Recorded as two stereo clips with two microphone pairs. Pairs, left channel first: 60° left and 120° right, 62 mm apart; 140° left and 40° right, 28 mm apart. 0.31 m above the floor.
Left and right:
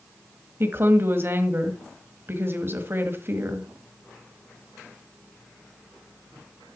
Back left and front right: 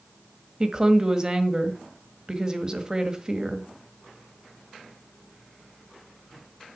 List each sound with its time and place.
0.6 s a woman speaking: 90° right, 1.5 m